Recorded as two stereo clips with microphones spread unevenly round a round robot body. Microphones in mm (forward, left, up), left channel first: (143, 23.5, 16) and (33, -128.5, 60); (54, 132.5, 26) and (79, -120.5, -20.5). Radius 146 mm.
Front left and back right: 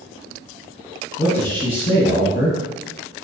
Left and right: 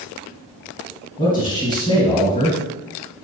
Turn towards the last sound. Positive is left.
turn(degrees=35)